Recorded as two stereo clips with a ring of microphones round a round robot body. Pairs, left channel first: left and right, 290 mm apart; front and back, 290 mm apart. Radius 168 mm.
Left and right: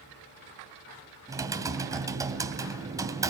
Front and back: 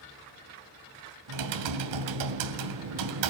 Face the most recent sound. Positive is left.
turn(degrees=-170)